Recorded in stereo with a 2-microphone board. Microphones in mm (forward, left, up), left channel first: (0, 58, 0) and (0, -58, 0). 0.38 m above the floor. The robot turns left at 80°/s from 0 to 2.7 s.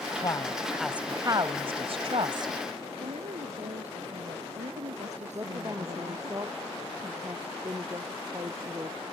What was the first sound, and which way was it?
A woman speaking, 45° left.